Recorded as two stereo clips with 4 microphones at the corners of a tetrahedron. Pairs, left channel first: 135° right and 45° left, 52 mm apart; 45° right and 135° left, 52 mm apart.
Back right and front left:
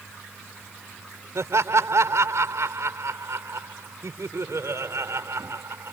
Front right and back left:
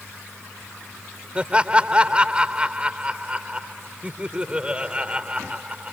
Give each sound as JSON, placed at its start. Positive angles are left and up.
{"t": 1.4, "sound": "laughter", "azimuth_deg": 70}